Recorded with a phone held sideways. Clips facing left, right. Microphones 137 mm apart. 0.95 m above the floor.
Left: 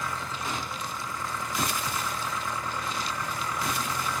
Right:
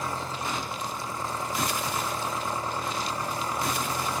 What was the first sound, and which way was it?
An engine running, 30° right (ahead or behind).